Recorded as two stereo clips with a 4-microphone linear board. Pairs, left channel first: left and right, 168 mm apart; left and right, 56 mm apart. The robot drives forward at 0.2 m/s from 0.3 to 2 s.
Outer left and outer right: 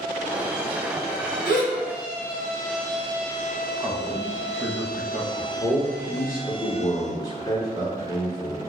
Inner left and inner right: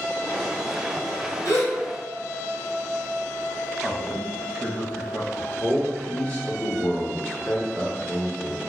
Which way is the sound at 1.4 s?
80° left.